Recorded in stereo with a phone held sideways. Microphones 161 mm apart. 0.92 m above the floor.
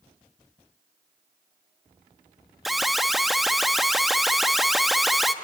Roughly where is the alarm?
Centre.